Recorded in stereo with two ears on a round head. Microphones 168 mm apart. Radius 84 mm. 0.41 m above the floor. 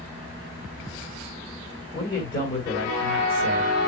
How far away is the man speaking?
About 2.5 m.